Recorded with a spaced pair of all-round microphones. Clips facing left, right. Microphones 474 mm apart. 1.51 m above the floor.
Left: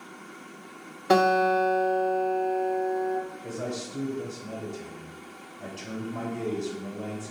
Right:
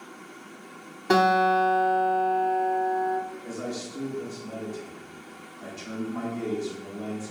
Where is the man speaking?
55° left (ahead or behind), 1.0 m.